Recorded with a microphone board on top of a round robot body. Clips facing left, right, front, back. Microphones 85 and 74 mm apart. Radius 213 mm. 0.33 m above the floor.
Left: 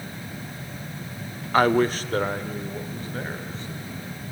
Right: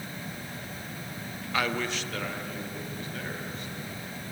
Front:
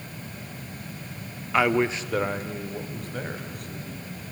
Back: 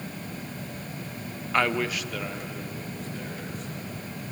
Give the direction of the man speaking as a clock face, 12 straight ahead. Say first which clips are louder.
Left 11 dB, front 3 dB; 9 o'clock.